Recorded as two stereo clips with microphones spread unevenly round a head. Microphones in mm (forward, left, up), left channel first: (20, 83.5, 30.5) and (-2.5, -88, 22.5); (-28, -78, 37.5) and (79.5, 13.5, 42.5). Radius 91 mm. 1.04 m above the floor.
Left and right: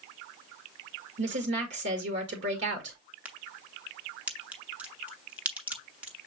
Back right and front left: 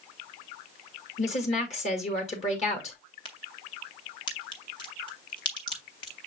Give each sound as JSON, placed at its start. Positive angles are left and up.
{"t": 1.2, "sound": "a woman speaking", "azimuth_deg": -105, "distance_m": 1.7}
{"t": 3.2, "sound": "a crack", "azimuth_deg": -175, "distance_m": 0.6}